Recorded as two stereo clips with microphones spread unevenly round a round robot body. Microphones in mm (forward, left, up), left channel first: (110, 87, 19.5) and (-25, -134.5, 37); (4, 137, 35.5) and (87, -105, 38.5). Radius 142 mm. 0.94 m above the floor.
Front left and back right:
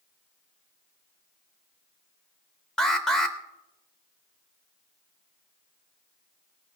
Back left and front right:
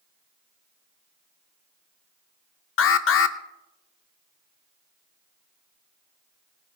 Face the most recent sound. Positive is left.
turn(degrees=145)